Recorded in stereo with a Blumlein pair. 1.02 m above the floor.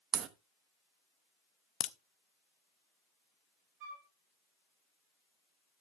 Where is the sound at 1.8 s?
25° left, 0.6 m.